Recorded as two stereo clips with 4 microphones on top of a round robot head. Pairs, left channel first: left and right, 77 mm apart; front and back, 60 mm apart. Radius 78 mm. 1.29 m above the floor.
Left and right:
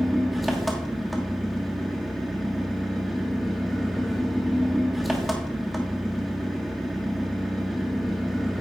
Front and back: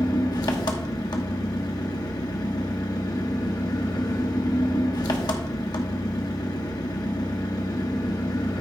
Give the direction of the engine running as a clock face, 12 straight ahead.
12 o'clock.